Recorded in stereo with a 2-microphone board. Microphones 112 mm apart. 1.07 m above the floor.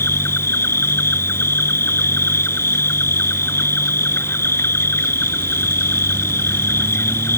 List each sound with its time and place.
0.0 s an insect: 20° left (ahead or behind)